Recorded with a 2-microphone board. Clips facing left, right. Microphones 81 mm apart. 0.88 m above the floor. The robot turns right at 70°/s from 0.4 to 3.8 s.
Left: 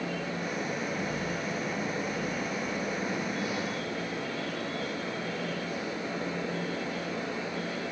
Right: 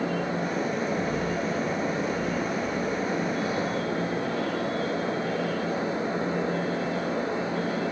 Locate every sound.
Only background noise.